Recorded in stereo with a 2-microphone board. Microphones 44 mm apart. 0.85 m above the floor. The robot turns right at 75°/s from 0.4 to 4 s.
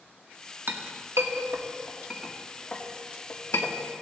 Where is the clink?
55° right (ahead or behind), 1.1 m; by 3.8 s 70° left (ahead or behind), 1.1 m.